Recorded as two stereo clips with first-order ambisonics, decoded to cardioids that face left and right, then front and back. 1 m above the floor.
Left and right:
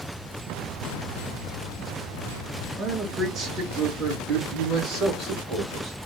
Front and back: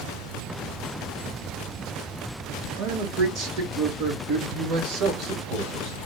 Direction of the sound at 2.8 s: 160° right.